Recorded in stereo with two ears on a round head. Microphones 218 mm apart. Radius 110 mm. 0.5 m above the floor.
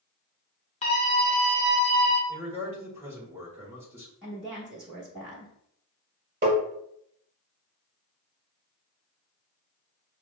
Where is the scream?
30° left (ahead or behind), 1.2 m; by 2.2 s 40° right (ahead or behind), 2.0 m.